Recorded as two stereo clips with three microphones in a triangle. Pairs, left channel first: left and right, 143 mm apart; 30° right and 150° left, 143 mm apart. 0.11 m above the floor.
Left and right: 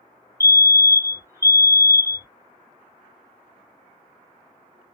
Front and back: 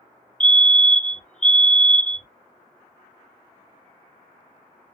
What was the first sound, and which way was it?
A fire alarm, 100° right.